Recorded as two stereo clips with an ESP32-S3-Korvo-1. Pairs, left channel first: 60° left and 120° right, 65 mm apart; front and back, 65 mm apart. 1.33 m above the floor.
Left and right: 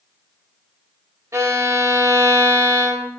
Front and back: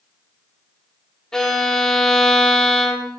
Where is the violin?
80° right, 1.1 m.